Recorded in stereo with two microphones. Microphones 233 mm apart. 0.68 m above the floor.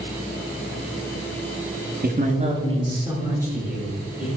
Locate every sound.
2.0 s a man speaking: 40° right (ahead or behind), 1.2 m; by 4.3 s 5° right (ahead or behind), 3.5 m